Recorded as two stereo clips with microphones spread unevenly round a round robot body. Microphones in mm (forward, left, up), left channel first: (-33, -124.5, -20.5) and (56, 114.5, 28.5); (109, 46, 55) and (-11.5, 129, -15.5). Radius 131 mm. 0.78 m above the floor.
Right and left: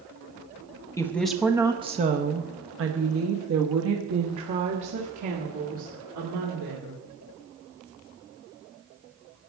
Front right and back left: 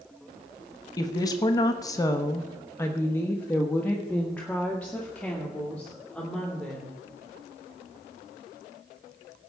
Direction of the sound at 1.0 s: 130° right.